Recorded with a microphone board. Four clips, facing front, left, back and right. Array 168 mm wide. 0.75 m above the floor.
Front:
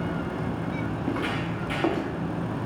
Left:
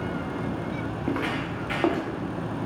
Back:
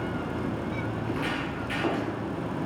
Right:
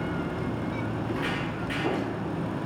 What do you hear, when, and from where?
1.0 s footsteps: 65° left, 4 m; by 2.1 s 80° left, 3.5 m